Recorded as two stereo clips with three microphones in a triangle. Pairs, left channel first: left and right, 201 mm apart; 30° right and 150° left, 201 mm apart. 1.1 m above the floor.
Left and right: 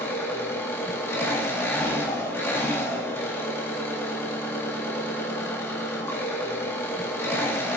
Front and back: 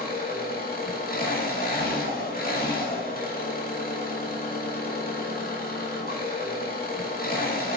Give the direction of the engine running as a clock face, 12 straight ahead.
12 o'clock.